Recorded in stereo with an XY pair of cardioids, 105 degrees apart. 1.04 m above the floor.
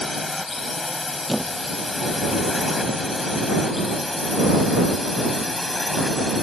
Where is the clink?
I don't hear a clink.